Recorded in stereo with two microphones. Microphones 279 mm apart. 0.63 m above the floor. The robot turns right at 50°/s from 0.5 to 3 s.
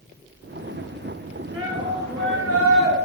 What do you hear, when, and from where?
1.5 s a shout: 170° right, 5.5 m; by 3.0 s 100° right, 5.5 m